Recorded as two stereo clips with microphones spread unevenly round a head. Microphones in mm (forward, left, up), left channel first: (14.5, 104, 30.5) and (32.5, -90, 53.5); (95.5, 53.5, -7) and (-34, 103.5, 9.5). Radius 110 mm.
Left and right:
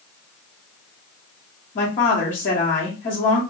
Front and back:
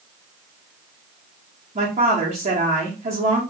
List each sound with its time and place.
1.8 s a woman speaking: 125° left, 0.9 m